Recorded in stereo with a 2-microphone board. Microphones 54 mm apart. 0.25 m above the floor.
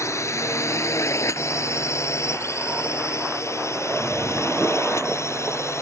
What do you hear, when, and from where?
0.0 s a drone: 60° left (ahead or behind); by 5.8 s 55° left (ahead or behind)